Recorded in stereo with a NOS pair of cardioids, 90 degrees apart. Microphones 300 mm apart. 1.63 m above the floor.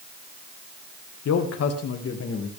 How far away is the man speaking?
About 1.8 m.